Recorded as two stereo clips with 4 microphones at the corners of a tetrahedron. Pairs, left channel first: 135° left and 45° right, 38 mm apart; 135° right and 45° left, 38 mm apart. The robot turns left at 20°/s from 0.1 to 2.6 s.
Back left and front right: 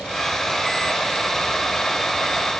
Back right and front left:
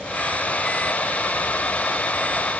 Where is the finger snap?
I don't hear a finger snap.